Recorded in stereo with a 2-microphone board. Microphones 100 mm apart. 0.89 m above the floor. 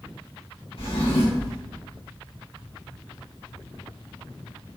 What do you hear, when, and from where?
0.8 s a drawer: 65° left (ahead or behind), 1.7 m